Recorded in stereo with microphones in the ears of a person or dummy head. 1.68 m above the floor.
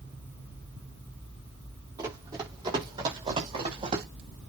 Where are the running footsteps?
20° right (ahead or behind), 7 m; by 4.1 s 35° right (ahead or behind), 6.5 m.